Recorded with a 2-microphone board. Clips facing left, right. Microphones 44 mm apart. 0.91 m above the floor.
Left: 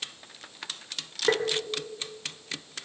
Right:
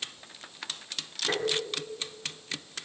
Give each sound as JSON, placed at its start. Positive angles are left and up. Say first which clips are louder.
{"t": 1.3, "sound": "tapping", "louder": "left 6 dB", "side_deg": 70, "distance_m": 2.5}